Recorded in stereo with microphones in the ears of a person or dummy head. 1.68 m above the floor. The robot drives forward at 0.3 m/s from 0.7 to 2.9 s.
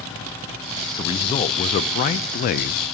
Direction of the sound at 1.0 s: 30° left (ahead or behind).